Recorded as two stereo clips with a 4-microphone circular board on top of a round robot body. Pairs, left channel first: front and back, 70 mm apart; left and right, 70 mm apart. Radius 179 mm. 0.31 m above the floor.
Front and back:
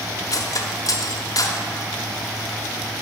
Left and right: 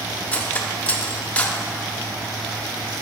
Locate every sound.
0.3 s cutlery clinking: 20° left, 1.0 m